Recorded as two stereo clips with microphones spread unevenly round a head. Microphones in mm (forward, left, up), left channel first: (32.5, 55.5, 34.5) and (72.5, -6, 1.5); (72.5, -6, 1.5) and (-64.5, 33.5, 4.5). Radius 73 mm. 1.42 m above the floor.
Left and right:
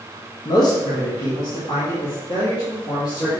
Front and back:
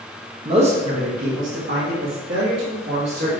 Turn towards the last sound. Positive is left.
turn(degrees=160)